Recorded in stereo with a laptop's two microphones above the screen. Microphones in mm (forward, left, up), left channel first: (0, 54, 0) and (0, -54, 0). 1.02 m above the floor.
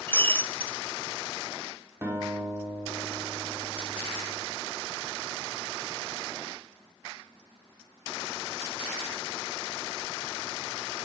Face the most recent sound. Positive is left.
turn(degrees=-25)  # may be behind; listen again after turning